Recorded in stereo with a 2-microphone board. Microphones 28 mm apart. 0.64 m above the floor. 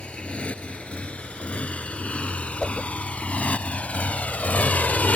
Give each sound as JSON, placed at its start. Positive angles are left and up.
{"t": 0.0, "sound": "a motorcycle", "side_deg": 50}
{"t": 2.6, "sound": "a whoosh", "side_deg": 10}